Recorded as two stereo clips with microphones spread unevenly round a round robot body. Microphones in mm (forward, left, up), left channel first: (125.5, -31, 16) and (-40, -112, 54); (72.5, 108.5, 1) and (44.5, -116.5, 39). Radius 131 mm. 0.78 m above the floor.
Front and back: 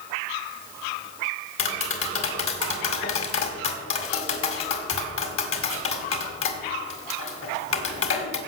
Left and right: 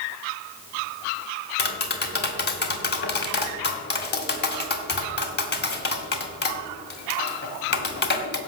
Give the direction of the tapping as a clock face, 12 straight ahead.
11 o'clock.